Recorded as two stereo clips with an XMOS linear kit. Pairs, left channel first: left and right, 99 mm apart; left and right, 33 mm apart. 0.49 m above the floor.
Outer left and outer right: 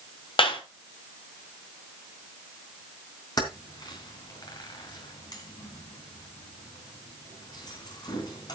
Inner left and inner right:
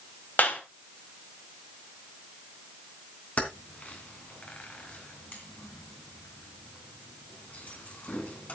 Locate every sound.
0.4 s a clap: 65° left (ahead or behind), 2.5 m
3.4 s keys jangling: 45° left (ahead or behind), 3 m